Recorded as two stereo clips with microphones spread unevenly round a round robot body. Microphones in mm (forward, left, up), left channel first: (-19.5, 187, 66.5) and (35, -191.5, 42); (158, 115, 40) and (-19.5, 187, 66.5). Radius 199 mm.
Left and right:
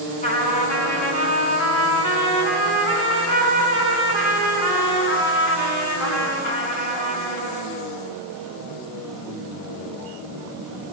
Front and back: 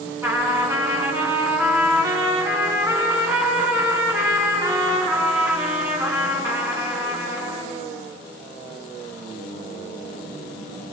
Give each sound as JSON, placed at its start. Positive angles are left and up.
{"t": 0.2, "sound": "a trumpet", "azimuth_deg": 80, "distance_m": 7.5}